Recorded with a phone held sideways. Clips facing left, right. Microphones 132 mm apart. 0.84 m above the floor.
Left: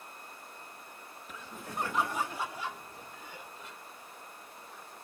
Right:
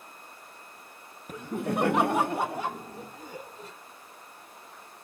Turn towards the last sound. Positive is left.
turn(degrees=-40)  # may be behind; listen again after turning